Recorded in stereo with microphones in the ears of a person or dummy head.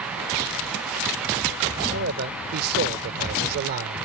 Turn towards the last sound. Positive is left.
turn(degrees=-55)  # may be behind; listen again after turning